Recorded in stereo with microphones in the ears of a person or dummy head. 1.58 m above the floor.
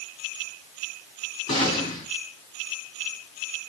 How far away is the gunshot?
About 4.5 m.